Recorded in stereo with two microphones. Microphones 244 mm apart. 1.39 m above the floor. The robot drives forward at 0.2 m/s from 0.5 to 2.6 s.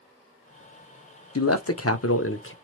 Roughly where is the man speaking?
Left.